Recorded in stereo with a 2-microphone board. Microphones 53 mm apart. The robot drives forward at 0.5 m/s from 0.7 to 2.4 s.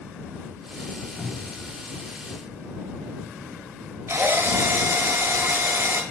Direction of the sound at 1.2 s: 30° left (ahead or behind).